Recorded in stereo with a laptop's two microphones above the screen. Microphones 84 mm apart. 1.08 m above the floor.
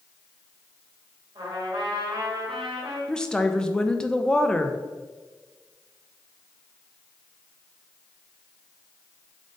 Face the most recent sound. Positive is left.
turn(degrees=10)  # may be behind; listen again after turning